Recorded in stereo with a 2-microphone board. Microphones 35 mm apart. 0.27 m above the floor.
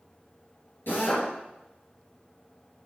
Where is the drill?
65° left (ahead or behind), 3.5 m.